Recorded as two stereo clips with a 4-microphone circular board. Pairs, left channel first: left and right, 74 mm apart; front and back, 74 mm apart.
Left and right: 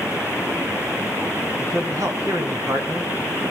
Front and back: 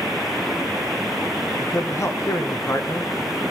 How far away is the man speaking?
About 4 m.